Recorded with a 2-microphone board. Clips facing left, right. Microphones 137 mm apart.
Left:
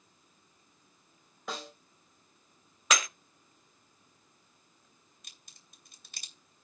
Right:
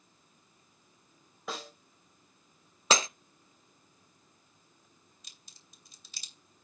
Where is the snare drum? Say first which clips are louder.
Even; centre (ahead or behind), 2.5 m.